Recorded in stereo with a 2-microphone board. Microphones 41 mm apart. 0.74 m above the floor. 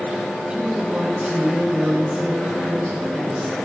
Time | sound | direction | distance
0.5 | a woman speaking | 30° right (ahead or behind) | 7.5 m